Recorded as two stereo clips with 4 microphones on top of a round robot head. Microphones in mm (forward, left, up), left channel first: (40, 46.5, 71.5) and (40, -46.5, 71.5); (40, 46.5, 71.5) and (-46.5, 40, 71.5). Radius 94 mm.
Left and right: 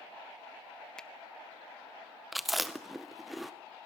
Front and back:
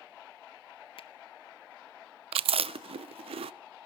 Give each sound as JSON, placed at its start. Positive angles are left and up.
{"t": 1.0, "sound": "a finger snap", "azimuth_deg": 10, "distance_m": 0.7}
{"t": 2.3, "sound": "chewing", "azimuth_deg": 180, "distance_m": 0.6}